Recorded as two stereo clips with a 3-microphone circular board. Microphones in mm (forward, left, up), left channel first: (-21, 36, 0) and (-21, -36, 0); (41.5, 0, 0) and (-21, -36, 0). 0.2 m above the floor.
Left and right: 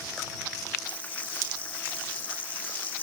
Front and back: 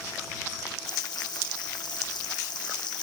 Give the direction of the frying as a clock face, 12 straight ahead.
11 o'clock.